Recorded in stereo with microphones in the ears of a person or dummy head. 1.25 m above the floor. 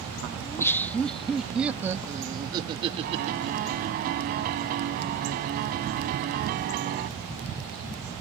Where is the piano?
55° right (ahead or behind).